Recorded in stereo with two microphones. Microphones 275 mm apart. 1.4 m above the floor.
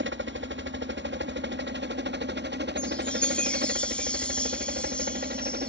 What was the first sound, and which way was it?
A helicopter, 45° right (ahead or behind).